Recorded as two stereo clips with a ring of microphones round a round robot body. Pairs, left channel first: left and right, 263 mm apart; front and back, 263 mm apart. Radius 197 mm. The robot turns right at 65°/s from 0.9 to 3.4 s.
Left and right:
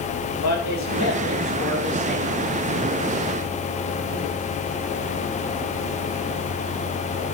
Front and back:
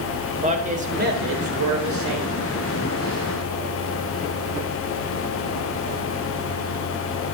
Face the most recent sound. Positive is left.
turn(degrees=-80)